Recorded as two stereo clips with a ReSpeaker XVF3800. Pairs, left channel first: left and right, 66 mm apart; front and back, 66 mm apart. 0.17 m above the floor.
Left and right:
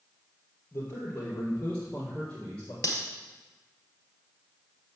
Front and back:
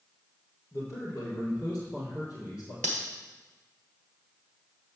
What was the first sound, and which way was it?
A man speaking, 35° left.